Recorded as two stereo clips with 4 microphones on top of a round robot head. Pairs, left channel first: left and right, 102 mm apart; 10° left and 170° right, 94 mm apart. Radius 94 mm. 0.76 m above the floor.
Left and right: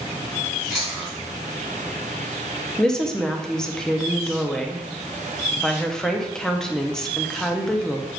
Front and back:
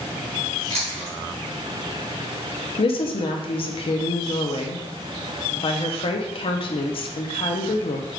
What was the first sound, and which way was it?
Chewing, 175° left.